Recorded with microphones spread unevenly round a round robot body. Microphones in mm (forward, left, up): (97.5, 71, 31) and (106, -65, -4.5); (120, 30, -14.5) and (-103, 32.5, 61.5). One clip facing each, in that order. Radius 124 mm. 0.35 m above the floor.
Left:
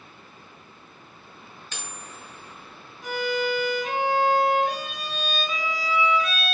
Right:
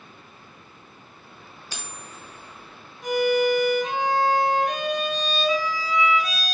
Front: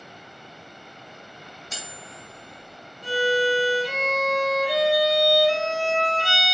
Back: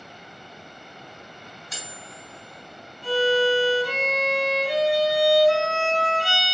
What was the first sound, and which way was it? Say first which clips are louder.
Cutlery clinking: right 1 dB, front 1 dB; 25° right.